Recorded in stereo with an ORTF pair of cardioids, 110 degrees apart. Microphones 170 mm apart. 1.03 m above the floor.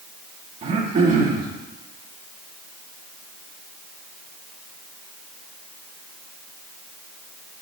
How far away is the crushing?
I don't hear crushing.